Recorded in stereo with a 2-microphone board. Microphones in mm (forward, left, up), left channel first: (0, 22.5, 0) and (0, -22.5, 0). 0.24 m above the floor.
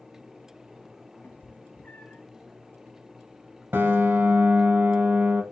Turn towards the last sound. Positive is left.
turn(degrees=-55)  # may be behind; listen again after turning